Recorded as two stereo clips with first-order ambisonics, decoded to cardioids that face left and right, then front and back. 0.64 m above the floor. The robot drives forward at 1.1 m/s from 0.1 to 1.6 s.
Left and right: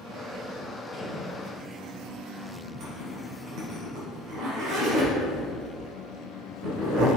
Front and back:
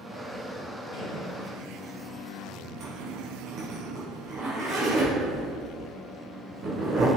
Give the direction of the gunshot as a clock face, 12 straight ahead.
11 o'clock.